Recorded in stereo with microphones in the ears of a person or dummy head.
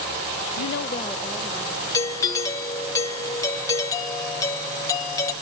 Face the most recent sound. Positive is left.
turn(degrees=25)  # may be behind; listen again after turning